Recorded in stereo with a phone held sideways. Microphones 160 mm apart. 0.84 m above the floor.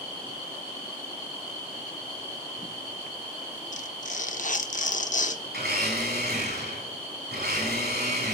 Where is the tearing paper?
50° left (ahead or behind), 0.7 m.